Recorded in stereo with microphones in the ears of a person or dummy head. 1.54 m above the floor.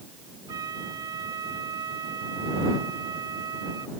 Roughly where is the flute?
Right.